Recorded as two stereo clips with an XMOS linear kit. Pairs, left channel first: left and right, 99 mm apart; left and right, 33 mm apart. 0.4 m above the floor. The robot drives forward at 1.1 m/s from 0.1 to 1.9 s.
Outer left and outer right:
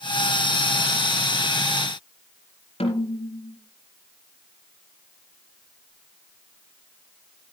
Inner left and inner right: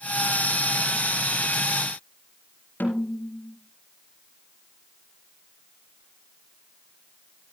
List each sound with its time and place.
2.8 s a snare drum: 85° left, 3.5 m